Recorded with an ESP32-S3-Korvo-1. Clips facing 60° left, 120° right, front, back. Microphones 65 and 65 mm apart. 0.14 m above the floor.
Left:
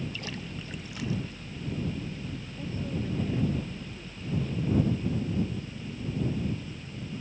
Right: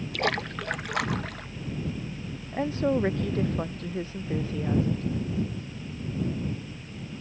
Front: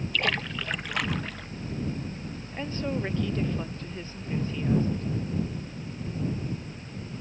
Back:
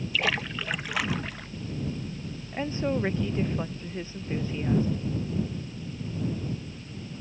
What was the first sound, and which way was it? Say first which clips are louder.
A splash: right 10 dB, back 1 dB; 95° right.